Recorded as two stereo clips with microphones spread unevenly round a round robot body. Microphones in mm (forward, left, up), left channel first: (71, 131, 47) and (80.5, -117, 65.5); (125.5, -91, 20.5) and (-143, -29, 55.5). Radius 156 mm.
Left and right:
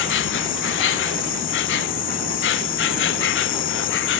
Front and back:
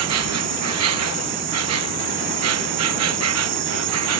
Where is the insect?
130° left.